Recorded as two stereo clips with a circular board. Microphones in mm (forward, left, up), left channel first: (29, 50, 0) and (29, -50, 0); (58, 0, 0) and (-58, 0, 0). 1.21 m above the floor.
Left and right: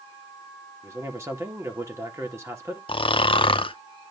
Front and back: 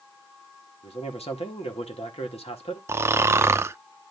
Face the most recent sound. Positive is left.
turn(degrees=115)